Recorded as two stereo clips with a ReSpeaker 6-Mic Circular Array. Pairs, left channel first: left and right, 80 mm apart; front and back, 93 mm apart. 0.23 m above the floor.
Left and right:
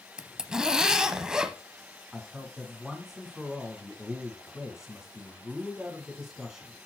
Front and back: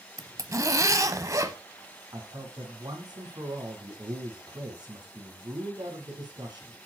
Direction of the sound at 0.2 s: 165° right.